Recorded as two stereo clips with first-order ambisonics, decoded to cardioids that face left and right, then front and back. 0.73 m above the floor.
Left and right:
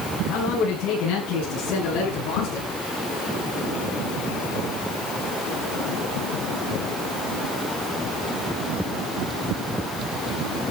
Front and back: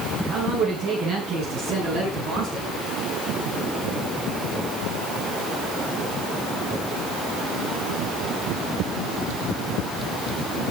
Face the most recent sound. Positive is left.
turn(degrees=135)